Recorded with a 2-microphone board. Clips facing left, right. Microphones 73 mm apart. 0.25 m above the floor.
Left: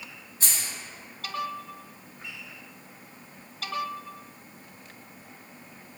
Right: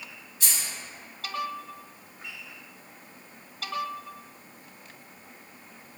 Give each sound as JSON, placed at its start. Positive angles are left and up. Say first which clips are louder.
{"t": 0.4, "sound": "keys jangling", "louder": "even", "side_deg": 40, "distance_m": 1.2}